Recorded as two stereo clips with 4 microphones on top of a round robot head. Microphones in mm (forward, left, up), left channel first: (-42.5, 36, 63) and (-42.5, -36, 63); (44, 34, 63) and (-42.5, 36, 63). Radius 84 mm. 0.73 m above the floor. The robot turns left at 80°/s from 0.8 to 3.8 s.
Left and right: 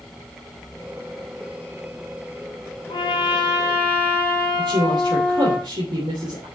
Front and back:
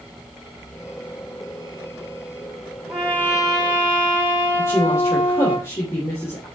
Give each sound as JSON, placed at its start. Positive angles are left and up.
{"t": 2.9, "sound": "a trumpet", "azimuth_deg": 90, "distance_m": 3.0}
{"t": 4.6, "sound": "a woman speaking", "azimuth_deg": -65, "distance_m": 3.0}